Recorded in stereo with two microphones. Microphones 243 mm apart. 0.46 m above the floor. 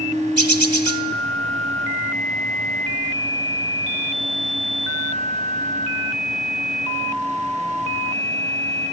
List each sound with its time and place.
0.4 s a bird: 80° right, 0.9 m